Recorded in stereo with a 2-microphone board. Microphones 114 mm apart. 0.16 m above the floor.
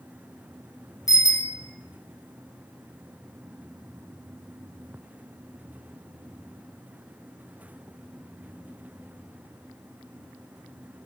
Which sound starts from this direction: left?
A bicycle bell, at 1.1 s.